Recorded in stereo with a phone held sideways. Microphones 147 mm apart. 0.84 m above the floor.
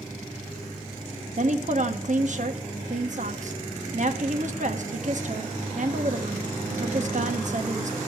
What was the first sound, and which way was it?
A woman speaking, 55° right (ahead or behind).